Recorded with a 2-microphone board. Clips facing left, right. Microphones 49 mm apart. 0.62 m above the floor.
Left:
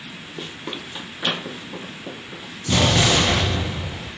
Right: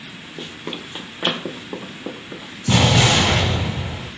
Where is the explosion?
75° right (ahead or behind), 1.4 m.